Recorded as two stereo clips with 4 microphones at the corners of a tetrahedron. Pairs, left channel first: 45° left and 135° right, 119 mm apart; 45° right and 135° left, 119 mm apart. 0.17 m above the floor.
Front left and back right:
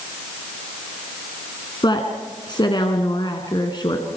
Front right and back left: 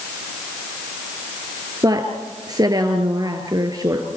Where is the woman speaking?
85° left, 2 m.